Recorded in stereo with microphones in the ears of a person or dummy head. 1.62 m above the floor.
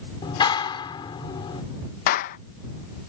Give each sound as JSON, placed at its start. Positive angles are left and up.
{"t": 0.2, "sound": "a clap", "side_deg": 30}
{"t": 2.1, "sound": "a clap", "side_deg": 45}